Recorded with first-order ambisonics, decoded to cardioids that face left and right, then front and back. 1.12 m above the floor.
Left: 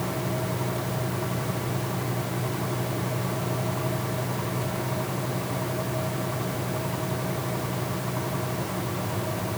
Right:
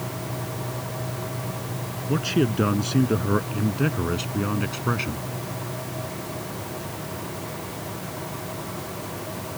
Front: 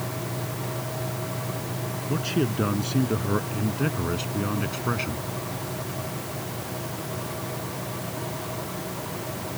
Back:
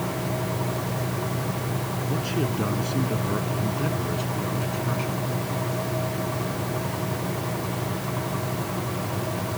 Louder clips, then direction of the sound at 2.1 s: Right 6 dB, front 2 dB; 85° right.